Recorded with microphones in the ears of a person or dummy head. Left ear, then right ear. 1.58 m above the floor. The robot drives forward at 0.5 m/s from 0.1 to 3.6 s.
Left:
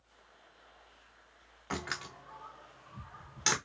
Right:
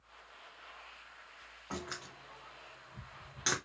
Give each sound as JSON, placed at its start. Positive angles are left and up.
{"t": 1.7, "sound": "a door slam", "side_deg": 30, "distance_m": 0.6}